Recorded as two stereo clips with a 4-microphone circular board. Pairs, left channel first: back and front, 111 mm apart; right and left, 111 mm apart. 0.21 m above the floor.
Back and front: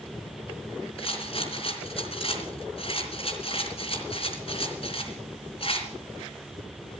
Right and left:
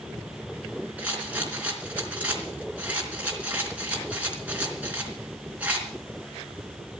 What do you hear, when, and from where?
1.0 s a rattle: 165° left, 3.5 m